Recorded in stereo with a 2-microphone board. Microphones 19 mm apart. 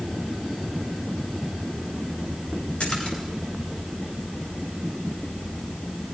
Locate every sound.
2.8 s a splash: 70° left (ahead or behind), 6.5 m